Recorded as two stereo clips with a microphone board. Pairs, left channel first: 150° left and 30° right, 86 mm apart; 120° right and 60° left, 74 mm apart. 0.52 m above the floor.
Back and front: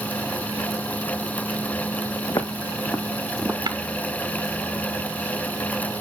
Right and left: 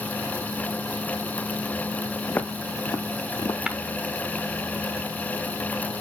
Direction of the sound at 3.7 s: 15° right.